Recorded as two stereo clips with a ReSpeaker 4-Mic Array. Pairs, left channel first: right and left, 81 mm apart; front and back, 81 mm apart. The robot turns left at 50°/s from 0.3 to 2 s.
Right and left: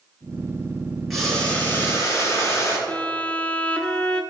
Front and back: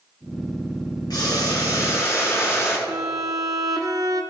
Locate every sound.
1.1 s boiling: straight ahead, 2.5 m; by 2.8 s 45° right, 2.5 m
2.9 s a violin: 165° right, 0.7 m